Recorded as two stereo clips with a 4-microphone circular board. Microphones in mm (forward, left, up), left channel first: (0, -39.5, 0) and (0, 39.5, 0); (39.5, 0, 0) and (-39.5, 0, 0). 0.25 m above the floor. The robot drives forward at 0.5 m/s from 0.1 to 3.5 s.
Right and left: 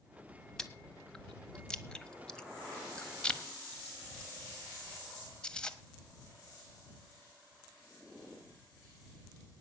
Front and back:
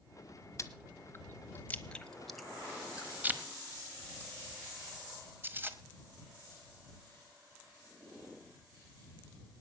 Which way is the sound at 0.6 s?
15° right.